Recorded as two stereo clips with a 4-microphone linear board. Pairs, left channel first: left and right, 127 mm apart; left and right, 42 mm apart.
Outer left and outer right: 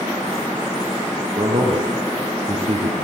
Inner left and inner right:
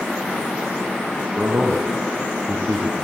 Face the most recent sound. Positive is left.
turn(degrees=-50)  # may be behind; listen again after turning